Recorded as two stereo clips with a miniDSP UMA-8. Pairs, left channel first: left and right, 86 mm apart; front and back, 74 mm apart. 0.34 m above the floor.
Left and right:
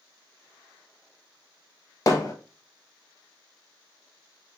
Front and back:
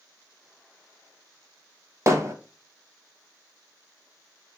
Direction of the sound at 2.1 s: 135° left.